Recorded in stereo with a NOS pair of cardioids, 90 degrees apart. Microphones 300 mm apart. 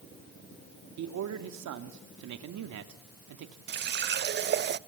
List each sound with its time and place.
1.0 s a man speaking: 70° right, 2.5 m
3.7 s a running tap: 35° right, 0.6 m